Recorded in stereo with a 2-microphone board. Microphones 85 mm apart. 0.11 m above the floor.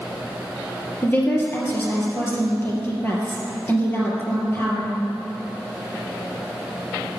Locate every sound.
1.0 s a woman speaking: 25° left (ahead or behind), 3 m